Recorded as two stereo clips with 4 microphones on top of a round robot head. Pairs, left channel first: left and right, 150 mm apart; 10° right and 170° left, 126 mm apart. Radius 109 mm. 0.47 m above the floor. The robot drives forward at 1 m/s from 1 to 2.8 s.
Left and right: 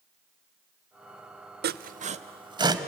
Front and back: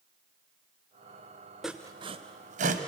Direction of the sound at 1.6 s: 100° right.